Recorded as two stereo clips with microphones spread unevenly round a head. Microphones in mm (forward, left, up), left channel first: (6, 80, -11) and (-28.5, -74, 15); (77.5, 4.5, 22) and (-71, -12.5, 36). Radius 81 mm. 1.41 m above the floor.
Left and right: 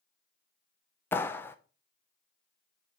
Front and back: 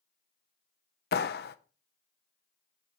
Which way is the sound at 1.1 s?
5° right.